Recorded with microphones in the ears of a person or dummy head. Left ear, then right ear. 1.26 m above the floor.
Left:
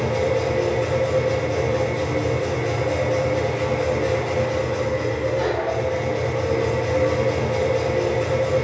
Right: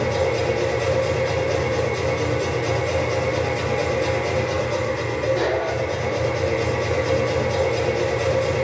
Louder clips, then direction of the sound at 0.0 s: Even; 45° right (ahead or behind).